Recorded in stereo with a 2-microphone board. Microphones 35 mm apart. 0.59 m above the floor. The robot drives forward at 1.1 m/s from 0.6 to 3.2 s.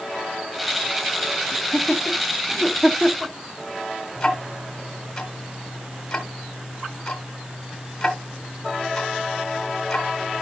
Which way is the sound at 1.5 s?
5° right (ahead or behind).